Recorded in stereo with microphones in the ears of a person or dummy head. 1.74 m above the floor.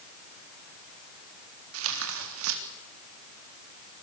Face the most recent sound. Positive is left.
turn(degrees=-85)